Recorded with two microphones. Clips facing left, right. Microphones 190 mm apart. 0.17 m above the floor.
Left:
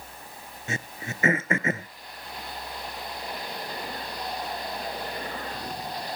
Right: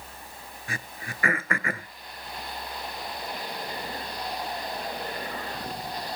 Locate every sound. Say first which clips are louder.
0.7 s throat clearing: left 5 dB; 25° left (ahead or behind), 0.5 m